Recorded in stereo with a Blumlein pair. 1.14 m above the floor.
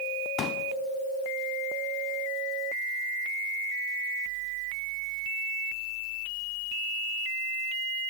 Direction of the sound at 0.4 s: 30° left.